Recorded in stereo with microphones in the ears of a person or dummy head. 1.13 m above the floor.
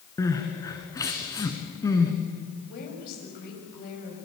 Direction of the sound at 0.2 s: 15° left (ahead or behind).